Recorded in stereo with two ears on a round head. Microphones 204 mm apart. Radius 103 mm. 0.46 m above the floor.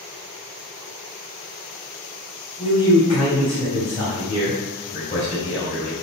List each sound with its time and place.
2.6 s a man speaking: 25° left (ahead or behind), 2.5 m